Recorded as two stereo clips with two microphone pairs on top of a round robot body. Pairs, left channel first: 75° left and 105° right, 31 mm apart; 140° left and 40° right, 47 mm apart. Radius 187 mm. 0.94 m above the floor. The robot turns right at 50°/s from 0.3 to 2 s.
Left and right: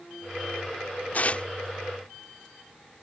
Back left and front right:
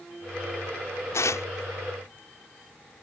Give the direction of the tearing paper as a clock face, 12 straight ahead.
8 o'clock.